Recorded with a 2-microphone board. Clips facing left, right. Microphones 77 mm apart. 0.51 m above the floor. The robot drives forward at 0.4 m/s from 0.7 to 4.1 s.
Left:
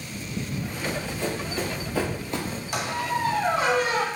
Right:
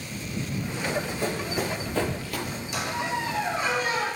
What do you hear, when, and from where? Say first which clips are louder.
0.8 s running footsteps: right 1 dB; 20° right (ahead or behind), 1.9 m; by 2.6 s 45° left (ahead or behind), 0.6 m
2.7 s a squeak: left 2 dB; 60° left (ahead or behind), 0.7 m; by 4.1 s 70° left (ahead or behind), 0.7 m